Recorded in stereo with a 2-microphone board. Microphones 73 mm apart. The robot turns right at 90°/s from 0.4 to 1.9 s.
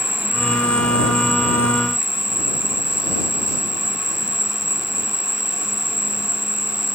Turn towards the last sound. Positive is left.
turn(degrees=-175)